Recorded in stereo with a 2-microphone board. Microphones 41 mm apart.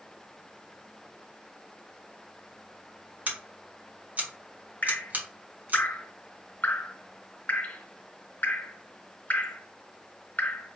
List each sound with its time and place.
3.3 s scissors: 40° right (ahead or behind), 1.1 m
4.8 s dripping: 45° left (ahead or behind), 0.6 m